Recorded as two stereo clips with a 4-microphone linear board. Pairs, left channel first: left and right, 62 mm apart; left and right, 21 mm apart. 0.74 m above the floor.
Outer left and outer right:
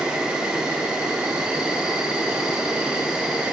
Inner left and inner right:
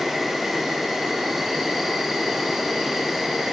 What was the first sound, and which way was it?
An insect, 15° right (ahead or behind).